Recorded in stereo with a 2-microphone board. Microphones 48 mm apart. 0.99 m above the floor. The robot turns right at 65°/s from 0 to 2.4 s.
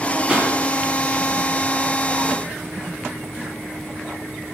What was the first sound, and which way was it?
A pop, 15° right (ahead or behind).